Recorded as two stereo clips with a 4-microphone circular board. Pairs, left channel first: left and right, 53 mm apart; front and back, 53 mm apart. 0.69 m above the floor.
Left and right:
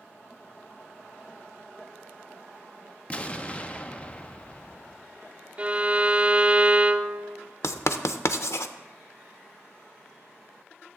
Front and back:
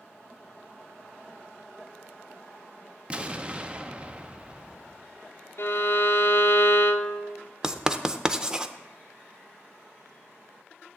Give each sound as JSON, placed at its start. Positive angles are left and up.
{"t": 3.1, "sound": "an explosion", "azimuth_deg": 130, "distance_m": 0.6}
{"t": 5.6, "sound": "a violin", "azimuth_deg": -25, "distance_m": 0.6}
{"t": 7.6, "sound": "writing", "azimuth_deg": 105, "distance_m": 0.5}